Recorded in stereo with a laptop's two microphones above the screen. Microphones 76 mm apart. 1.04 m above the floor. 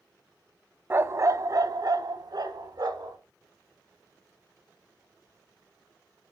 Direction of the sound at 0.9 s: 25° right (ahead or behind).